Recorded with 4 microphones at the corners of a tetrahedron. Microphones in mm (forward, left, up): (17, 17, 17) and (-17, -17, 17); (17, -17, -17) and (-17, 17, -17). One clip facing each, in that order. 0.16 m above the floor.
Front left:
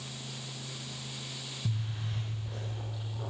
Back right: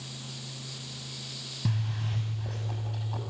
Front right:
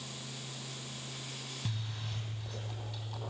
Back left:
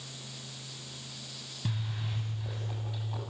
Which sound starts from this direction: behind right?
A zipper, at 1.6 s.